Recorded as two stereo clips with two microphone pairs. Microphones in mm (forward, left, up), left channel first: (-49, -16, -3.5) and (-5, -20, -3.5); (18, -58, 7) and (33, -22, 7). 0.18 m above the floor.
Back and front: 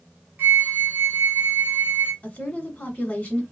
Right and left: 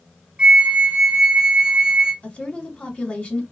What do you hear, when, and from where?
0.4 s a flute: 10° left, 1.2 m
2.2 s a woman speaking: 145° right, 1.3 m